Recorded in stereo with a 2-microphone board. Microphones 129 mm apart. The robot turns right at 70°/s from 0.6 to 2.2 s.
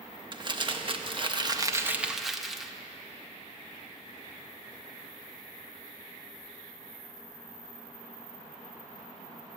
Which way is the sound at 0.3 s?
115° right.